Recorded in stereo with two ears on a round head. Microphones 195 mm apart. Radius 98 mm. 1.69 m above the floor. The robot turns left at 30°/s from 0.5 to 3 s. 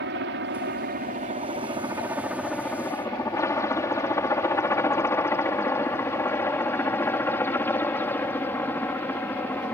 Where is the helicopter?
55° right (ahead or behind); by 9.7 s 10° left (ahead or behind).